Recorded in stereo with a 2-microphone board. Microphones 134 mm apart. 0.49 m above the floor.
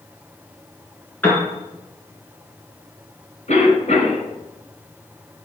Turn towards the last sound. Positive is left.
turn(degrees=60)  # may be behind; listen again after turning